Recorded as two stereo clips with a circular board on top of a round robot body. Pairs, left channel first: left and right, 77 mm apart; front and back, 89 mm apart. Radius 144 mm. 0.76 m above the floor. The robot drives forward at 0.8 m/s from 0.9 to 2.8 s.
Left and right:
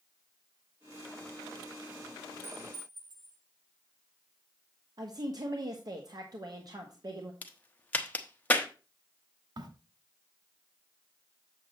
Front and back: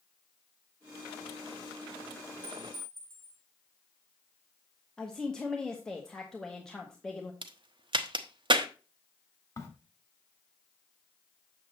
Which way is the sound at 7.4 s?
160° left.